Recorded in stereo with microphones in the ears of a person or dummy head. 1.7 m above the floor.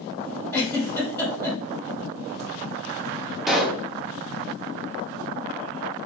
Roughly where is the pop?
Centre.